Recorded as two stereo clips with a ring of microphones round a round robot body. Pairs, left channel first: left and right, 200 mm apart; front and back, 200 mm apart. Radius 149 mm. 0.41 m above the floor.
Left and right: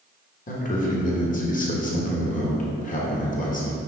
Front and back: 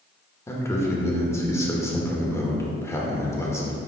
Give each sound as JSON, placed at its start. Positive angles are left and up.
{"t": 0.5, "sound": "a man speaking", "azimuth_deg": 70, "distance_m": 1.4}